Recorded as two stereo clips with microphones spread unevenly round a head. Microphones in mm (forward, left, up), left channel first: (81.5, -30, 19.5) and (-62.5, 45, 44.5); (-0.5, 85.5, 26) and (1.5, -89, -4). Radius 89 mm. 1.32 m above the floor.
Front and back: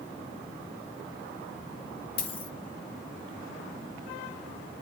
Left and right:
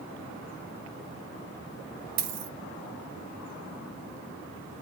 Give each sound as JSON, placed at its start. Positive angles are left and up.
{"t": 2.2, "sound": "a dropped coin", "azimuth_deg": -85, "distance_m": 0.8}